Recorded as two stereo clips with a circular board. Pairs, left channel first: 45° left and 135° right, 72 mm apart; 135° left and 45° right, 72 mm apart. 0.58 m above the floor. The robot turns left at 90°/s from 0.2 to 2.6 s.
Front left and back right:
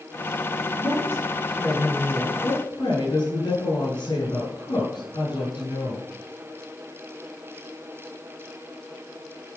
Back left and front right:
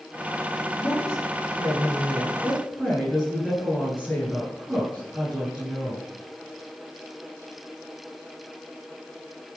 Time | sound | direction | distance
0.8 | a woman speaking | 160° right | 7.5 m